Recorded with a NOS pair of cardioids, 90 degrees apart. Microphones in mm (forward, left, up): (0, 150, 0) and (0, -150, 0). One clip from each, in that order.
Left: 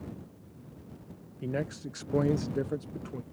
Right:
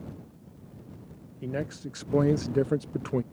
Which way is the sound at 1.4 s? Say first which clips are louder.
Right 1 dB; straight ahead.